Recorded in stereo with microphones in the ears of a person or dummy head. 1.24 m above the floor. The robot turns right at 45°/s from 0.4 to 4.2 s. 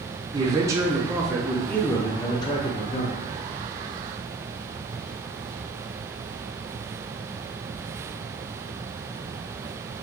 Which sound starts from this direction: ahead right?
A man speaking, at 0.3 s.